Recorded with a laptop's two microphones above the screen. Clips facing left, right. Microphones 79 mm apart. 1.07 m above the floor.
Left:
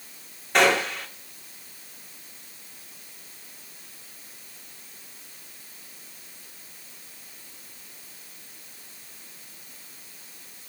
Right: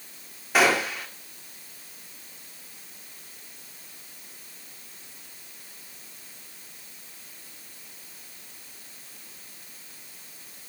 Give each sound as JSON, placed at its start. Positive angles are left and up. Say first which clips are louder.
{"t": 0.5, "sound": "a gunshot", "louder": "left 1 dB", "side_deg": -5, "distance_m": 2.0}